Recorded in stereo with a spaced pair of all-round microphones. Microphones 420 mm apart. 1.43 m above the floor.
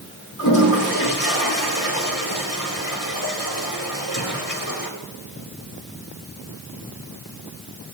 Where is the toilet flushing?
45° left (ahead or behind), 3.5 m.